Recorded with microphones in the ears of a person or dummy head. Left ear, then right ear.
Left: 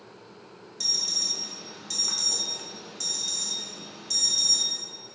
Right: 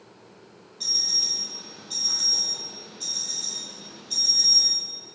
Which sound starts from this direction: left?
An alarm, at 0.8 s.